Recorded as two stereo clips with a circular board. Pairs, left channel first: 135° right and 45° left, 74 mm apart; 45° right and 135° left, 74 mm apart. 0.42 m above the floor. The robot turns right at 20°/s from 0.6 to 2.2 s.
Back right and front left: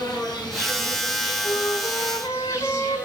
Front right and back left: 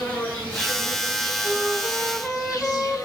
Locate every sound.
0.0 s an insect: 115° right, 9 m; by 3.1 s 85° right, 9 m
1.4 s a flute: 150° right, 3.5 m; by 3.1 s 130° right, 3.5 m